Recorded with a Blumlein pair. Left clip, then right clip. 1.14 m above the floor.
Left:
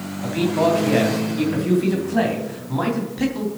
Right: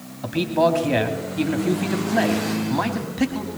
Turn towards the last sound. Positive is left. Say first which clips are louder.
# even
turn(degrees=-10)